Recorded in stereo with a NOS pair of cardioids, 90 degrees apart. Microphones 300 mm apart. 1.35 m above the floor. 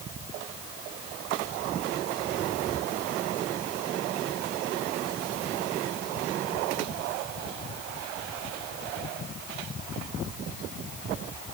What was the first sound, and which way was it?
Only background noise.